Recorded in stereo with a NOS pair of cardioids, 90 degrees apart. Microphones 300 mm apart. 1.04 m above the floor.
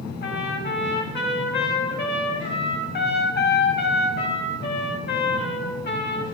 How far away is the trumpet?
About 5.5 m.